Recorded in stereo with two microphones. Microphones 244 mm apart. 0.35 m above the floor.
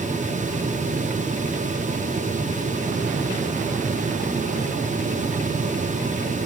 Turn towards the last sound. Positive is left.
No sound to turn to.